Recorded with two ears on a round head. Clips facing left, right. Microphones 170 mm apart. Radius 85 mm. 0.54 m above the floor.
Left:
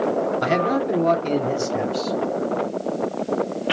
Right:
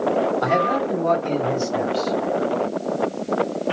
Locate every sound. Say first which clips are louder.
0.4 s a man speaking: even; 35° left (ahead or behind), 0.9 m; by 2.2 s 40° left (ahead or behind), 1.4 m